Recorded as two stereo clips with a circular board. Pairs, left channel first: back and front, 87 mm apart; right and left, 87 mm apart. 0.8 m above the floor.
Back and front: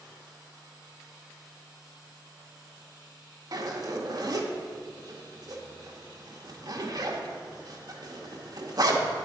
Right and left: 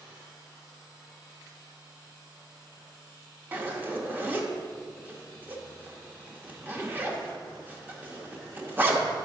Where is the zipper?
25° left, 1.0 m.